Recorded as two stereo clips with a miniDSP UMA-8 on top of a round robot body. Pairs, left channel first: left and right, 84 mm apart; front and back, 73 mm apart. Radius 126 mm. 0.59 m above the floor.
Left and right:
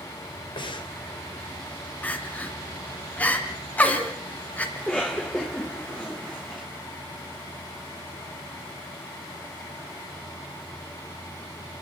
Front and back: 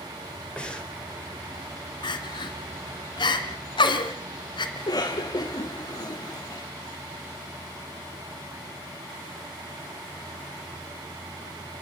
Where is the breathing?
75° left, 3.5 m.